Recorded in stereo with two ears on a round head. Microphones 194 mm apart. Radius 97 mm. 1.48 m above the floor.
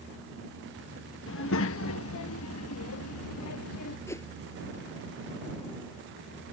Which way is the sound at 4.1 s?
10° left (ahead or behind).